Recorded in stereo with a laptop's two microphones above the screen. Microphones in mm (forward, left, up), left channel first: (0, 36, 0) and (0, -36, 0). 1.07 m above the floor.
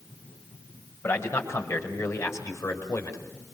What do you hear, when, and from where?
1.0 s a man speaking: 35° left (ahead or behind), 5.5 m; by 3.2 s 45° left (ahead or behind), 4.5 m